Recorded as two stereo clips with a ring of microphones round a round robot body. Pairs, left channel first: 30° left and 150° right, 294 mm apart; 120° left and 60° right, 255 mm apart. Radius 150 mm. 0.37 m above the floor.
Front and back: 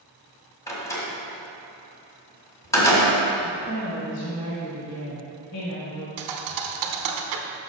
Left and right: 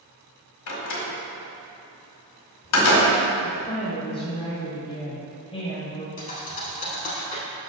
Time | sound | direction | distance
0.7 | a door slam | 110° left | 1.6 m
3.4 | a woman speaking | 55° left | 1.6 m
6.2 | a thud | 175° right | 0.8 m